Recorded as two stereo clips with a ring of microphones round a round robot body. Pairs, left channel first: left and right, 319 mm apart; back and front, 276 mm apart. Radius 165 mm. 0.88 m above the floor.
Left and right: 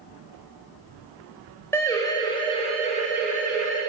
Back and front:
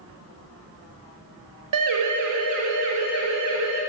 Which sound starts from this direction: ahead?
A siren, at 1.7 s.